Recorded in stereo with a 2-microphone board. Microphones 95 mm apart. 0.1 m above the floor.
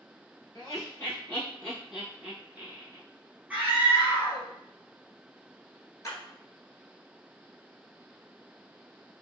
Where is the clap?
35° left (ahead or behind), 1.0 m.